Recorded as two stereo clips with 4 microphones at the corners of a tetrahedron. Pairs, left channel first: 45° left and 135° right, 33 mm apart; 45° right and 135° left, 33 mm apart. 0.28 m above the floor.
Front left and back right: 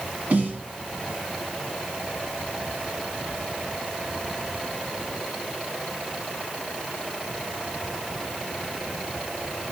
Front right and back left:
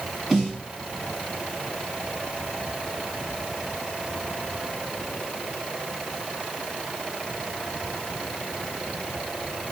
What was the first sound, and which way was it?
A snare drum, 135° right.